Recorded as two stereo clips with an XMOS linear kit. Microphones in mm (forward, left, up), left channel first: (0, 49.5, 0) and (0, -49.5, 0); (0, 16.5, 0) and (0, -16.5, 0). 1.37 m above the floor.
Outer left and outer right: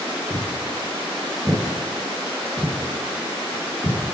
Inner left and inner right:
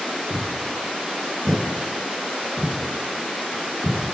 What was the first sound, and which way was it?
Footsteps, 25° right (ahead or behind).